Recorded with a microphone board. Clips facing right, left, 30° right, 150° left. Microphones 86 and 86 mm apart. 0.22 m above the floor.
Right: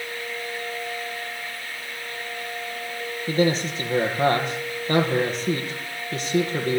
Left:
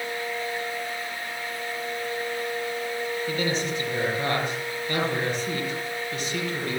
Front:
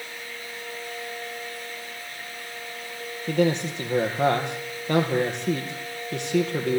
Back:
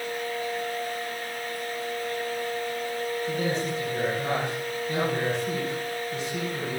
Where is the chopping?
No chopping in this recording.